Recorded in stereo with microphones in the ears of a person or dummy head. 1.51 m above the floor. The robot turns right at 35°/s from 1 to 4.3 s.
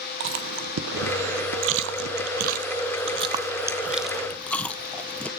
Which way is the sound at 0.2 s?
70° right (ahead or behind).